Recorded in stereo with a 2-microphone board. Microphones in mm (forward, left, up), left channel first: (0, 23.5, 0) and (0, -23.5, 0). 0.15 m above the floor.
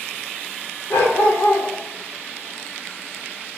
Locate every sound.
0.9 s a dog barking: 70° left (ahead or behind), 5 m